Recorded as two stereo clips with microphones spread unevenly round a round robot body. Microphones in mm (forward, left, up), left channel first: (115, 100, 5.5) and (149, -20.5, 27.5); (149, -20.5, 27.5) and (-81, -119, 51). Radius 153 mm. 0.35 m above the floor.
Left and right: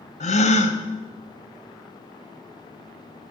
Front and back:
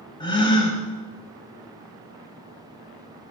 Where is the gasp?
95° left, 0.8 m.